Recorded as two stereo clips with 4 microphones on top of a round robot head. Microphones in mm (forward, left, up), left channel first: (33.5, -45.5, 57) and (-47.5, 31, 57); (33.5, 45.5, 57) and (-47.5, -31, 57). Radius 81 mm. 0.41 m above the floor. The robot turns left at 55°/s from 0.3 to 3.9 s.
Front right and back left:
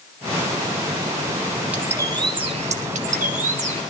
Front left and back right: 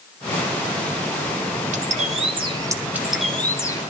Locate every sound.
1.7 s a bird: 145° right, 1.9 m; by 3.8 s 100° left, 1.9 m